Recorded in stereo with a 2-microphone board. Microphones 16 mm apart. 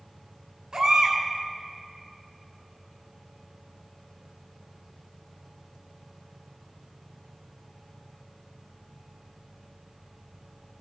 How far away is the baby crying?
About 3 m.